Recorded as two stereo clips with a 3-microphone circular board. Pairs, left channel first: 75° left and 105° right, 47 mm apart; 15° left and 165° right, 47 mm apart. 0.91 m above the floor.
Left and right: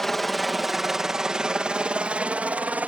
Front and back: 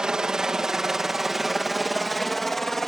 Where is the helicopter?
155° left; by 2.9 s 65° right.